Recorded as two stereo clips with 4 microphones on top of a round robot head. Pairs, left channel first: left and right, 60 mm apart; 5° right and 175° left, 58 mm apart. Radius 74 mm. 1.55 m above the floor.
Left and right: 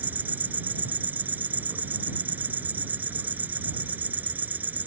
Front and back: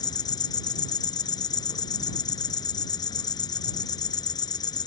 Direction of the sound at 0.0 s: 20° right.